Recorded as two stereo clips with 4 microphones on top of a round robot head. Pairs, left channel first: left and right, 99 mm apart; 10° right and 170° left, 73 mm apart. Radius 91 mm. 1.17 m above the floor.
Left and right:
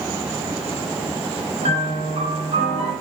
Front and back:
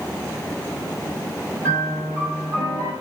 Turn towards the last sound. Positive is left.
turn(degrees=-120)